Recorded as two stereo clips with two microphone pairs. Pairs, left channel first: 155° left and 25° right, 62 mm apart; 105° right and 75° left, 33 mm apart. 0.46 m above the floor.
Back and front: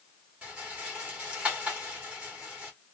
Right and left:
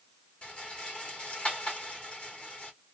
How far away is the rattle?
About 1.4 m.